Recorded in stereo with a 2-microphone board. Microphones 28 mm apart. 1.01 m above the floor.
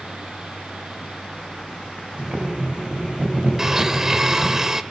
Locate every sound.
2.2 s boiling: 35° right (ahead or behind), 4.5 m
3.6 s a blender: 20° right (ahead or behind), 0.9 m